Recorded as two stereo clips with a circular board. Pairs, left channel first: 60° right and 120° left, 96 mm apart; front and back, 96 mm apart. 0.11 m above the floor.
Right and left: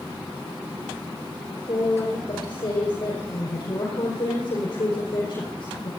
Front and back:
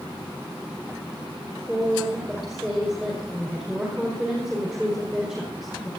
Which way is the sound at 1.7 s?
95° right.